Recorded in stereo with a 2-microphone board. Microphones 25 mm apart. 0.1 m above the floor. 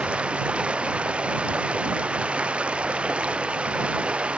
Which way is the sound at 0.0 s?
50° right (ahead or behind).